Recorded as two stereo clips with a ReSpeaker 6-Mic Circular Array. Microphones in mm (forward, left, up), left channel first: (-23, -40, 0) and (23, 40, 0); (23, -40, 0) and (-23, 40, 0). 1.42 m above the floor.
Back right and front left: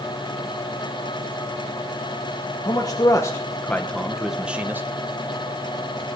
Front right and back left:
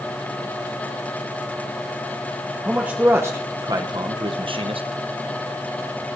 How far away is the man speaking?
About 1.2 m.